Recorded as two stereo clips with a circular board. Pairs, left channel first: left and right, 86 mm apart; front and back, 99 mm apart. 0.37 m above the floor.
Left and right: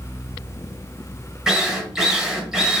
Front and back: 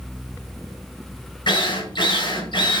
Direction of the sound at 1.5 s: 10° right.